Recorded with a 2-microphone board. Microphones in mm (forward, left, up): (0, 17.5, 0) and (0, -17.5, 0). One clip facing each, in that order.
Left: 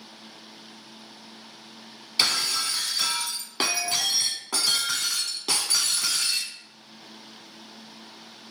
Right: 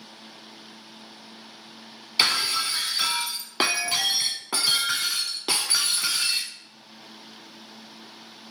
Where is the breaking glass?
20° right (ahead or behind), 0.5 m.